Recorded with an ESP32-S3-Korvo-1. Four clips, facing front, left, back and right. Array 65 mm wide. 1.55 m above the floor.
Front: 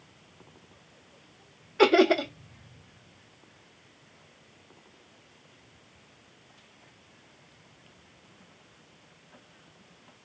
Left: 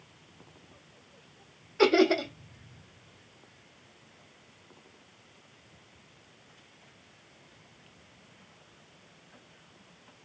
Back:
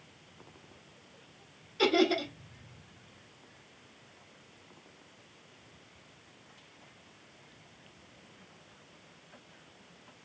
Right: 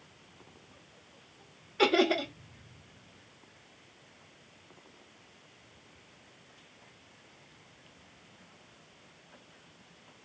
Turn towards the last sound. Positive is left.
turn(degrees=10)